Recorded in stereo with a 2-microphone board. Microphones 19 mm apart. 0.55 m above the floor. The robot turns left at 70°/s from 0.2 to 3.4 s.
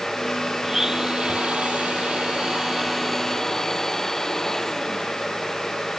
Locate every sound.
0.6 s a blender: 10° right; by 5.3 s 155° left